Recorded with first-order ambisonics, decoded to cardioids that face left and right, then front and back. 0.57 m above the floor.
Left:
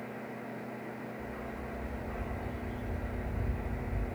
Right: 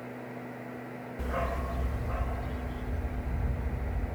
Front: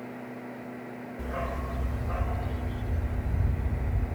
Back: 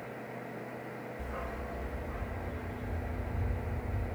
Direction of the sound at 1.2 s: 75° right.